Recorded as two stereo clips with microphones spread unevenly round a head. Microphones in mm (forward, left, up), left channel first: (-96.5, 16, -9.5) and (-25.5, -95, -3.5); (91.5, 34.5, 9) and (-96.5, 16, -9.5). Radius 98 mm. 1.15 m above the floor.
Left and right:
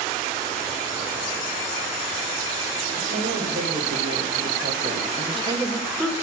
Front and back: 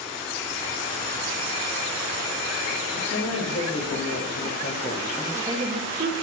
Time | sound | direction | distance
3.0 | a woman speaking | 15° right | 3 m